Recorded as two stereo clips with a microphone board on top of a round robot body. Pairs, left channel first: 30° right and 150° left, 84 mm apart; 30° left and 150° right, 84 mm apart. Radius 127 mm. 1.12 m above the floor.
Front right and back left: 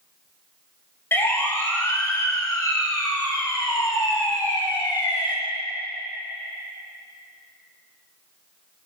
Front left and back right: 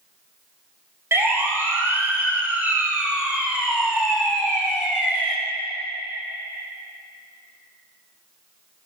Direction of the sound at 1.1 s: 90° right.